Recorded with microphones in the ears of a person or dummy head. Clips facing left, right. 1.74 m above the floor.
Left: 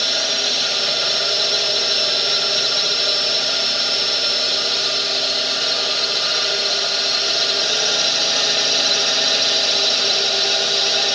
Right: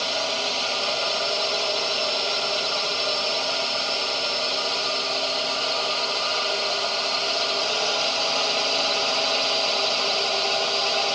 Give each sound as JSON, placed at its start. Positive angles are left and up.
{"t": 0.0, "sound": "a drone", "side_deg": 20}